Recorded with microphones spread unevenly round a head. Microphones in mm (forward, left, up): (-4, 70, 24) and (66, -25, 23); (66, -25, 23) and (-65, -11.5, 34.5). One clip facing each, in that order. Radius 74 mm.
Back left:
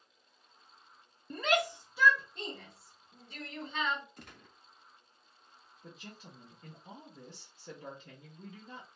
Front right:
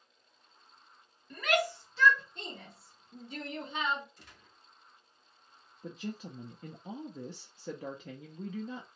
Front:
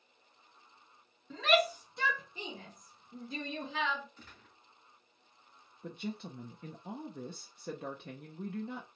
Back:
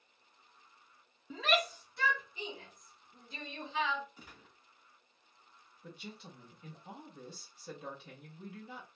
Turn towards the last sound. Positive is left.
turn(degrees=-40)